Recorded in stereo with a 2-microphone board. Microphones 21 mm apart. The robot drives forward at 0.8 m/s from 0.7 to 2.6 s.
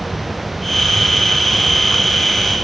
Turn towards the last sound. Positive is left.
No sound to turn to.